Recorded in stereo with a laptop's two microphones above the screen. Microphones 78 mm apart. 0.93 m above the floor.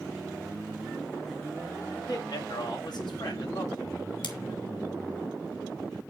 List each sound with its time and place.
1.9 s a man speaking: 50° left (ahead or behind), 2 m; by 3.9 s 70° left (ahead or behind), 2 m
4.2 s scissors: 80° left, 2 m